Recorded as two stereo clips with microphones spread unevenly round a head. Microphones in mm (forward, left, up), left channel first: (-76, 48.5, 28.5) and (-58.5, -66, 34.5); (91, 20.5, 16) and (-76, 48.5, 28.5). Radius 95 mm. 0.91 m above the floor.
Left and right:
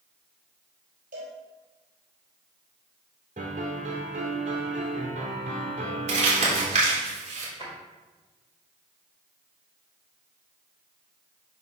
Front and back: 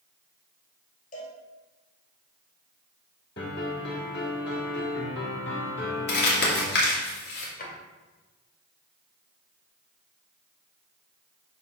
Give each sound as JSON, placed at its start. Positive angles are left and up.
{"t": 1.1, "sound": "a cowbell", "azimuth_deg": -60, "distance_m": 3.5}
{"t": 3.4, "sound": "a piano", "azimuth_deg": -40, "distance_m": 2.0}
{"t": 6.1, "sound": "crumpling", "azimuth_deg": -35, "distance_m": 2.5}
{"t": 7.6, "sound": "a drawer", "azimuth_deg": 30, "distance_m": 2.0}